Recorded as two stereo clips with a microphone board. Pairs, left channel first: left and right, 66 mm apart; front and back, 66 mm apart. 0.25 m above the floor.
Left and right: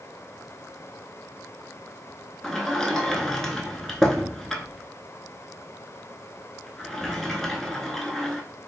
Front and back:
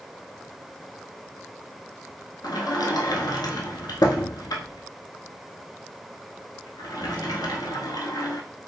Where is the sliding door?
5° left, 0.5 m.